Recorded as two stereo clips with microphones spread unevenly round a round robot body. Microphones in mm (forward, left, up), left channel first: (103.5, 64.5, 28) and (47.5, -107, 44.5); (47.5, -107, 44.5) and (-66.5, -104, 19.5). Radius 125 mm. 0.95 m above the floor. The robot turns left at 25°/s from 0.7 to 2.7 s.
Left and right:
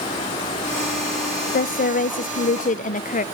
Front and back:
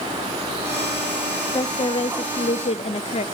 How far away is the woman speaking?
About 0.5 m.